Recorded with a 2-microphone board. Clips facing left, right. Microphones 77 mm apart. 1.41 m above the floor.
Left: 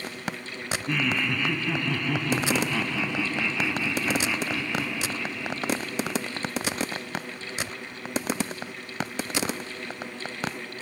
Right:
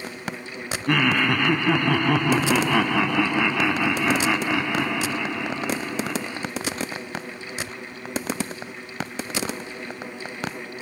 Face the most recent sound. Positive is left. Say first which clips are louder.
# right 7 dB
turn(degrees=-60)  # may be behind; listen again after turning